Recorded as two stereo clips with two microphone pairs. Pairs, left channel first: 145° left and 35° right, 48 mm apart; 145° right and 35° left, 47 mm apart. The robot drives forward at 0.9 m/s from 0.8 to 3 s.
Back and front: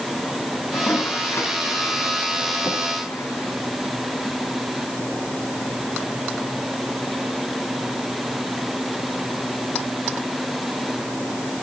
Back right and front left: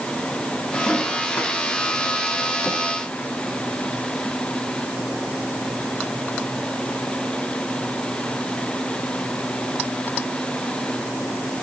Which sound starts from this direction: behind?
A toilet flushing, at 0.7 s.